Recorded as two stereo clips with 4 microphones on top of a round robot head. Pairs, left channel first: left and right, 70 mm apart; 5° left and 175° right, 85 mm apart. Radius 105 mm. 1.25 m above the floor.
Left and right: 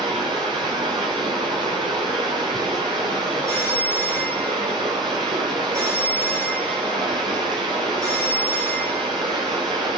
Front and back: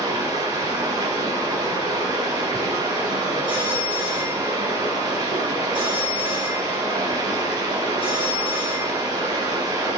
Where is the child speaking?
No child speaking in this recording.